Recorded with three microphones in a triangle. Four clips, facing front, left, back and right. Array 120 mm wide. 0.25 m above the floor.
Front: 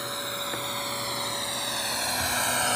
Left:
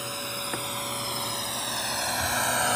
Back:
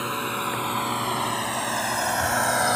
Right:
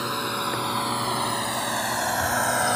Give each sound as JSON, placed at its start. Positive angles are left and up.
{"t": 0.0, "sound": "a drone", "azimuth_deg": -135}